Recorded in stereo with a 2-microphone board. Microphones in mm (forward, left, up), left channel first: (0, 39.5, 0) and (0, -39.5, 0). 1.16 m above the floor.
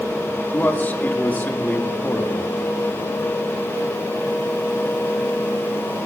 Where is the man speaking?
25° left (ahead or behind), 1.7 m.